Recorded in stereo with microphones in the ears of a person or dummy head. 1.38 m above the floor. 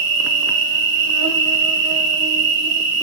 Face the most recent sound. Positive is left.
turn(degrees=-70)  # may be behind; listen again after turning